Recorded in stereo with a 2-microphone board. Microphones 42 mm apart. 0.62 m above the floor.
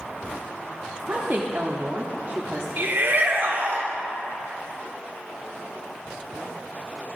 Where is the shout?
55° right (ahead or behind), 1.3 m.